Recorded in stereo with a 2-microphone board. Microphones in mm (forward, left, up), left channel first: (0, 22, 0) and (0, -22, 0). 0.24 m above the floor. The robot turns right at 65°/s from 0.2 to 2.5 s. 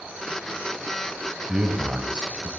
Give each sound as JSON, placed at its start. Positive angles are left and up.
{"t": 1.5, "sound": "a man speaking", "side_deg": -20, "distance_m": 1.0}